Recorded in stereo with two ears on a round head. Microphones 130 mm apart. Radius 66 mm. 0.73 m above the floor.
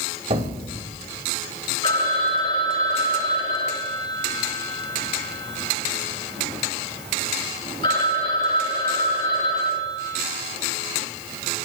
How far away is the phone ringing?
About 3 m.